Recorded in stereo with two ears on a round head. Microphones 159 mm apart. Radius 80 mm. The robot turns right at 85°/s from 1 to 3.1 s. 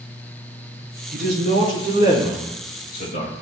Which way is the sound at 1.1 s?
110° right.